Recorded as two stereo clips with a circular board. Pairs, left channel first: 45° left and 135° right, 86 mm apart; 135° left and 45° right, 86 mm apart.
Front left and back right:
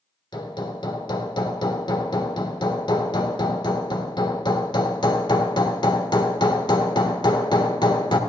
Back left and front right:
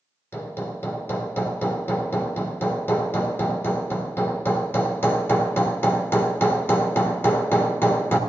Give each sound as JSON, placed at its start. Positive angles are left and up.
{"t": 0.3, "sound": "hammering", "azimuth_deg": 75, "distance_m": 1.3}